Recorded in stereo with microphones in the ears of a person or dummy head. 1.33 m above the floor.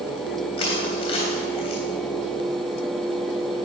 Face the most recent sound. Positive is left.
turn(degrees=30)  # may be behind; listen again after turning